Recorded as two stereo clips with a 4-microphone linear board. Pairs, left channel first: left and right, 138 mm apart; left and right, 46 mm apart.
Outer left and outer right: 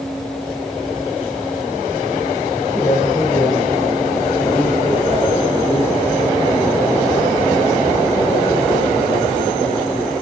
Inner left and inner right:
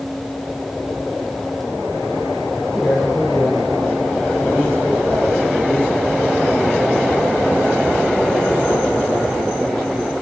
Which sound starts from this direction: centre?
A man speaking, at 2.7 s.